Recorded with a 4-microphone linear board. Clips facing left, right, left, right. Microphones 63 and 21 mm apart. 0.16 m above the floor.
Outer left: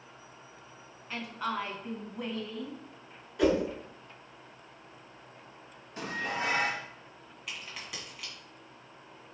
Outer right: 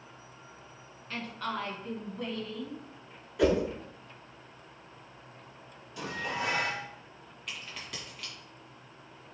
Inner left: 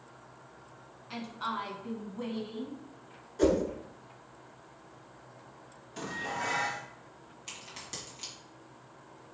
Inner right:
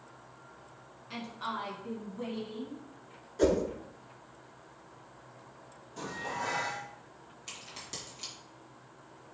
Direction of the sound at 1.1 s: 10° left (ahead or behind).